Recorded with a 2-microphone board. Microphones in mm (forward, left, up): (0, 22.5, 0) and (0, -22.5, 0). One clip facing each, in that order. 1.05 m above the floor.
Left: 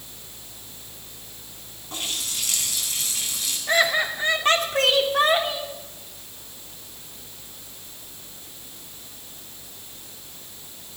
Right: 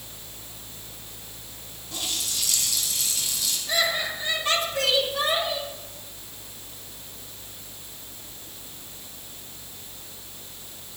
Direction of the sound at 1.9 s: 50° left (ahead or behind).